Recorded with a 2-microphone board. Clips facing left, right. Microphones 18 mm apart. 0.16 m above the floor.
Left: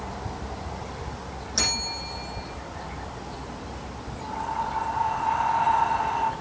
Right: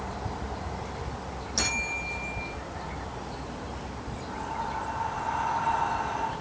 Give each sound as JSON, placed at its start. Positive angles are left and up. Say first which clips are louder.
{"t": 1.6, "sound": "a bell", "louder": "left 3 dB", "side_deg": 10, "distance_m": 8.0}
{"t": 4.2, "sound": "breathing", "louder": "left 5 dB", "side_deg": 30, "distance_m": 10.0}